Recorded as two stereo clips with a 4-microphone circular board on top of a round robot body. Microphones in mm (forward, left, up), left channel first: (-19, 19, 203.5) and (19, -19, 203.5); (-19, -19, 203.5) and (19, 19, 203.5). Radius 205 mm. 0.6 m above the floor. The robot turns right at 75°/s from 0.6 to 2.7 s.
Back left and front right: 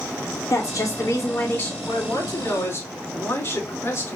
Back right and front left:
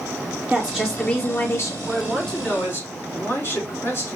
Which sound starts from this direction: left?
A man speaking, at 1.8 s.